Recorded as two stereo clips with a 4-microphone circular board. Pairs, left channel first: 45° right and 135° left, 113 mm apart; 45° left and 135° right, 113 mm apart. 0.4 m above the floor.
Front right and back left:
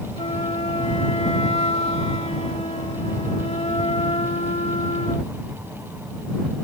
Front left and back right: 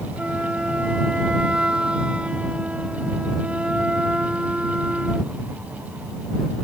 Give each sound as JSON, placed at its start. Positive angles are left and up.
{"t": 0.2, "sound": "a flute", "azimuth_deg": -55}